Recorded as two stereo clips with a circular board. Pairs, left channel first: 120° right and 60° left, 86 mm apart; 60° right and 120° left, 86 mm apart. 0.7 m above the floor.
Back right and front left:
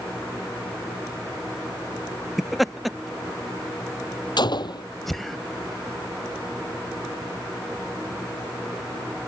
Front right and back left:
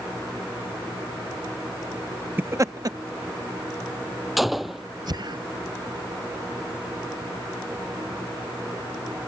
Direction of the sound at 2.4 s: 150° left.